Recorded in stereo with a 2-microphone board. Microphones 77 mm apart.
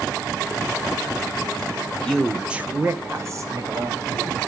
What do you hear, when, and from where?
1.9 s a man speaking: 20° left (ahead or behind), 1.0 m; by 4.4 s 50° right (ahead or behind), 3 m